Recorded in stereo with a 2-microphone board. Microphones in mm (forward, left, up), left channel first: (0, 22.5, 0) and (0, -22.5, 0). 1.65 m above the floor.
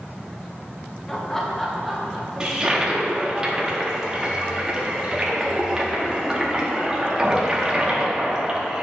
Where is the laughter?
10° left (ahead or behind), 1.2 m; by 3.4 s 10° right (ahead or behind), 3 m.